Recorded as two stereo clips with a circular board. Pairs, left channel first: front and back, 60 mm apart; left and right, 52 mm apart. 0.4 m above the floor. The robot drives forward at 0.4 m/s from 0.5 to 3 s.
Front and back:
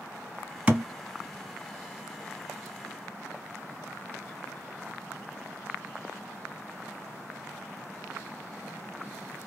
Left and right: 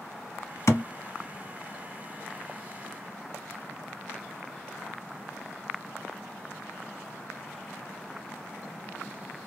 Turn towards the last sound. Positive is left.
turn(degrees=150)